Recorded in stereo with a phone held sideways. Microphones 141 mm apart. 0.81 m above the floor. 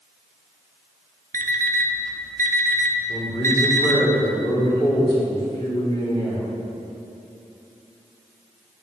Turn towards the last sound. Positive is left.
turn(degrees=35)  # may be behind; listen again after turning